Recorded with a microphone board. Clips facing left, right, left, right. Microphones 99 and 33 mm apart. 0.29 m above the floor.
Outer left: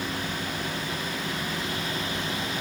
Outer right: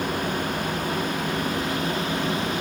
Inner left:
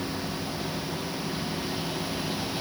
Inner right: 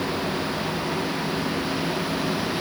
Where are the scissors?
No scissors in this recording.